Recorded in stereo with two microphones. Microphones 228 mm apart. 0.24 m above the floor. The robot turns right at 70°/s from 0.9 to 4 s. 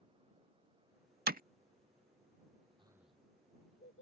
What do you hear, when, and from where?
1.3 s hammering: 45° right (ahead or behind); by 1.4 s 35° right (ahead or behind)
2.8 s a child speaking: 20° right (ahead or behind); by 4.0 s 60° left (ahead or behind)